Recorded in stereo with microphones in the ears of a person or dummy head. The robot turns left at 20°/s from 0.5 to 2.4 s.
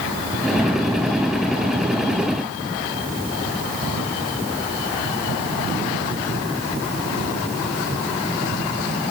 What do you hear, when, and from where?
Only background noise.